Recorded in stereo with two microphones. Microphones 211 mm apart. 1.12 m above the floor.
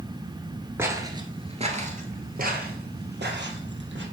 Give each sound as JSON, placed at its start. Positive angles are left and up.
{"t": 0.8, "sound": "footsteps", "side_deg": -10, "distance_m": 1.2}